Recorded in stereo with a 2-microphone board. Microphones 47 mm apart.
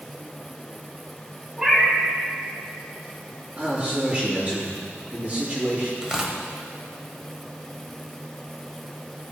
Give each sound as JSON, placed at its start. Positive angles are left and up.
{"t": 1.6, "sound": "a cat meowing", "side_deg": -15, "distance_m": 2.5}
{"t": 3.6, "sound": "a man speaking", "side_deg": -30, "distance_m": 3.0}
{"t": 6.0, "sound": "tearing paper", "side_deg": -15, "distance_m": 1.7}